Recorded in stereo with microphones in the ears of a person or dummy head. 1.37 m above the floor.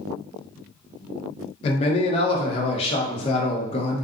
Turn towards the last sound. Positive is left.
turn(degrees=30)  # may be behind; listen again after turning